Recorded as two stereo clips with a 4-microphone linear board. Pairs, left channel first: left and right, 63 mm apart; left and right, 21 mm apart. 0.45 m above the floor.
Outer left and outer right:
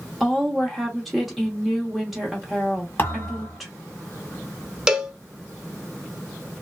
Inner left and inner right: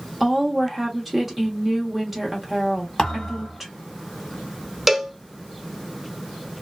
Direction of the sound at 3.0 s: 35° left (ahead or behind).